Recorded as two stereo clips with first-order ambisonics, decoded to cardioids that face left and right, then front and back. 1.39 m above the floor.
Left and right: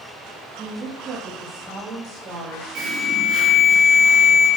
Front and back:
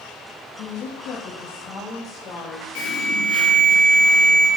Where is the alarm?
35° right, 4.5 m.